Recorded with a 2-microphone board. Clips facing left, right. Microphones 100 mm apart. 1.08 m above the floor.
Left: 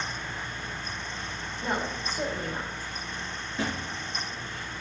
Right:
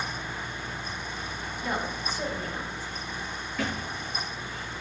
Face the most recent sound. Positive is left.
turn(degrees=25)  # may be behind; listen again after turning